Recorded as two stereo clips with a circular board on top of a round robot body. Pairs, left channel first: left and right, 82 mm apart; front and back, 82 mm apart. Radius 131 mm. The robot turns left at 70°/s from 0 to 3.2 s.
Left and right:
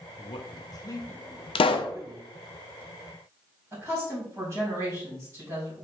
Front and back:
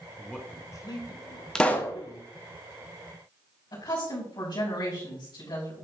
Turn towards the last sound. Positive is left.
turn(degrees=-30)